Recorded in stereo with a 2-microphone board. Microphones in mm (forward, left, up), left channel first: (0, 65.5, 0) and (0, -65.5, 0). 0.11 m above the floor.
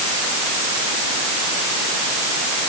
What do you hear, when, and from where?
Only background noise.